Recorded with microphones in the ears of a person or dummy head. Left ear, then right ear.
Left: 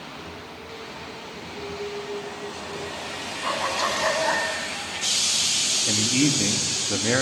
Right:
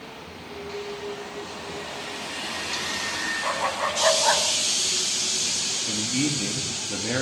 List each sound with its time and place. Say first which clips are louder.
3.4 s a dog barking: left 4 dB; 5° right (ahead or behind), 3.5 m; by 4.5 s 25° right (ahead or behind), 2.5 m
5.9 s a man speaking: left 4 dB; 75° left (ahead or behind), 2.5 m